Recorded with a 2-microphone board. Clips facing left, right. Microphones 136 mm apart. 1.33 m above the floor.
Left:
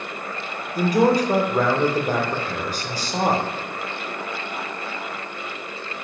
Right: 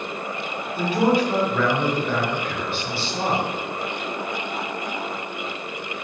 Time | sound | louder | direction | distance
0.8 | a man speaking | left 2 dB | 40° left (ahead or behind) | 1.2 m